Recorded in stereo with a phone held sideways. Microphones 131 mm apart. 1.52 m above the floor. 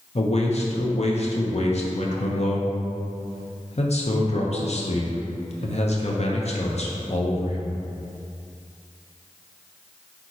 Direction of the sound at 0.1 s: 55° left (ahead or behind).